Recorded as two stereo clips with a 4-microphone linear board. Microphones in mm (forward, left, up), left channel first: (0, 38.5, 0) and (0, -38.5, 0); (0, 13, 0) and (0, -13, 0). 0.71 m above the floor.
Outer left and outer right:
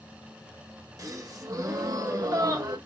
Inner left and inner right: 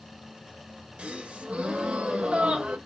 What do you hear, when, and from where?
1.0 s a gasp: 50° right (ahead or behind), 1.2 m